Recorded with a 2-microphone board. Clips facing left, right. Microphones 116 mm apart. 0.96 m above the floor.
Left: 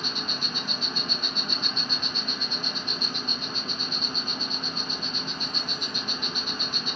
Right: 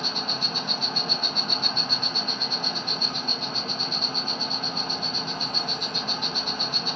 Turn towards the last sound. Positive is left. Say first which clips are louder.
# right 3 dB
turn(degrees=-70)  # may be behind; listen again after turning